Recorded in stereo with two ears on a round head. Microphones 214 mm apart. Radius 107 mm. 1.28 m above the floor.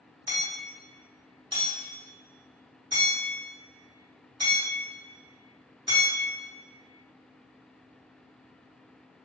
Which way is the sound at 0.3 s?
20° right (ahead or behind).